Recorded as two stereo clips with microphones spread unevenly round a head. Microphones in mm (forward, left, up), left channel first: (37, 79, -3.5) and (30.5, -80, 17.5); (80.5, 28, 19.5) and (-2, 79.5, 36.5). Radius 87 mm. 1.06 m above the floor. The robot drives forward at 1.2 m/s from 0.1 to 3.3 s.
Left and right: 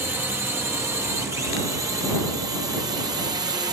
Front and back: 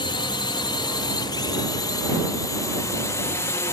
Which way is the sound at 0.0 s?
15° right.